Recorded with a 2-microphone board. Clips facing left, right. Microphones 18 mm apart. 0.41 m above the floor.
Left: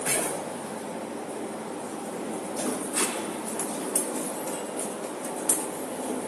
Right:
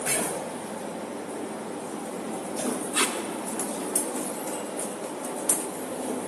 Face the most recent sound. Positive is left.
turn(degrees=-55)  # may be behind; listen again after turning